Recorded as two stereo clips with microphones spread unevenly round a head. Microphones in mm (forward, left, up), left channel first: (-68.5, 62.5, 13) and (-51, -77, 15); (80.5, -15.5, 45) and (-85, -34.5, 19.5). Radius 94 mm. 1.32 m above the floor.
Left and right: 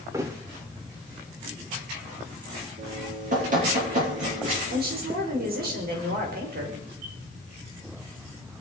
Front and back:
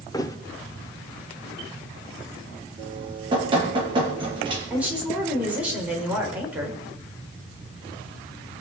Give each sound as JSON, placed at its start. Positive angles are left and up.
{"t": 0.1, "sound": "a thud", "azimuth_deg": -30, "distance_m": 1.0}
{"t": 2.8, "sound": "dripping", "azimuth_deg": -110, "distance_m": 7.5}
{"t": 4.7, "sound": "a woman speaking", "azimuth_deg": -90, "distance_m": 5.5}